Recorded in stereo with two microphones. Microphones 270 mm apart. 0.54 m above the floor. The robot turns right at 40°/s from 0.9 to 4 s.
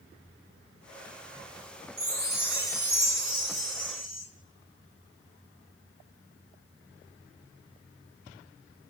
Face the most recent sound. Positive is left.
turn(degrees=-65)